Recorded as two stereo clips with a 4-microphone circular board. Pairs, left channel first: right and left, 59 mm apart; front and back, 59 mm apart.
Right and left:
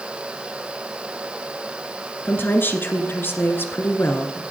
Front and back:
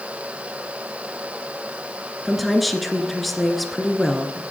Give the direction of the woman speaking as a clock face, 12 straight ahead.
3 o'clock.